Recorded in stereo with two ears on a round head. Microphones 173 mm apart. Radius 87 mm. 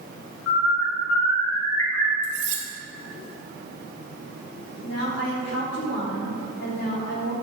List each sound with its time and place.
0.5 s a bird: 85° left, 3 m
2.2 s cutlery clinking: 40° right (ahead or behind), 2 m
4.8 s a woman speaking: 55° left (ahead or behind), 3 m